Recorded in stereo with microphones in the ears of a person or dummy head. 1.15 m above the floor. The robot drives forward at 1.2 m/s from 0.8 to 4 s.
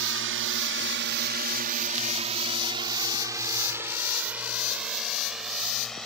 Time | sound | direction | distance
0.0 | a drone | 65° right (ahead or behind) | ?